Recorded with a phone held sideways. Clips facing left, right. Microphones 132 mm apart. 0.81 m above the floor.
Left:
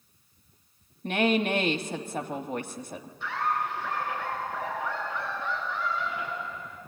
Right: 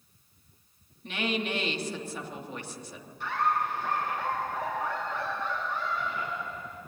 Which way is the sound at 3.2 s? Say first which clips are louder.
Right 1 dB; 85° right.